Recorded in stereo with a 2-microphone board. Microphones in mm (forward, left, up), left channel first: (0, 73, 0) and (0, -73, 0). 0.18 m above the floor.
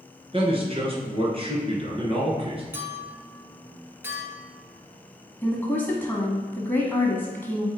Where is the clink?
15° right (ahead or behind), 1.8 m.